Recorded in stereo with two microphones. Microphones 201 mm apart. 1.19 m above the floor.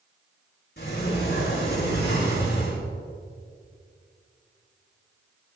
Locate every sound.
0.8 s a sliding door: 60° left (ahead or behind), 6 m